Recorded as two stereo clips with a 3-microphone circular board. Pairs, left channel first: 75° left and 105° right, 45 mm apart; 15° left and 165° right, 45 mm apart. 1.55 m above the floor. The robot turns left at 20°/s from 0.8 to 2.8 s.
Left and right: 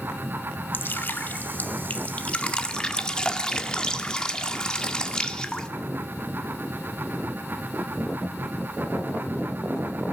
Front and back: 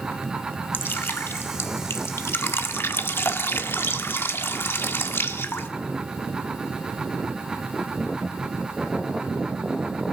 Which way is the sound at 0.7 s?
45° left.